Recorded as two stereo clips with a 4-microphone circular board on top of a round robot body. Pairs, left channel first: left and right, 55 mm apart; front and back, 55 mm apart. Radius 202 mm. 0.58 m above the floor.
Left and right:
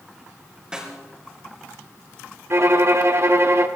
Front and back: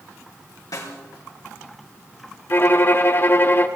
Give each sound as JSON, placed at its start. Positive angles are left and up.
{"t": 0.7, "sound": "a snare drum", "azimuth_deg": -15, "distance_m": 3.0}
{"t": 2.5, "sound": "a violin", "azimuth_deg": -50, "distance_m": 1.3}